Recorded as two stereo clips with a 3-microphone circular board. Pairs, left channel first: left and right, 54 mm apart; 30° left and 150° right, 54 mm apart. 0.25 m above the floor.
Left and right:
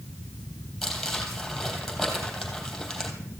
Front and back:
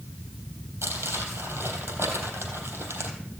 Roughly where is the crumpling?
Behind.